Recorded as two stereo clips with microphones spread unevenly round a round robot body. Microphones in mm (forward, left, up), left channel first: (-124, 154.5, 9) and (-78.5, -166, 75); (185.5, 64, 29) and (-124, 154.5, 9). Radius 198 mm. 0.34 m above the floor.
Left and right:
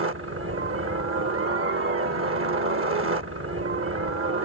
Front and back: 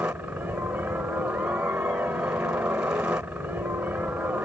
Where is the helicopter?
115° right.